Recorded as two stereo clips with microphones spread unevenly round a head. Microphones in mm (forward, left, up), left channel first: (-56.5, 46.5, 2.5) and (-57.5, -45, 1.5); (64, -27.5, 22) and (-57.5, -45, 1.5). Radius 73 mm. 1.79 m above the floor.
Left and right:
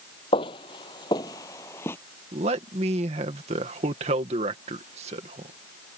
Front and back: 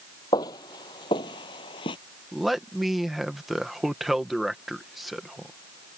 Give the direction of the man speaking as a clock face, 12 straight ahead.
3 o'clock.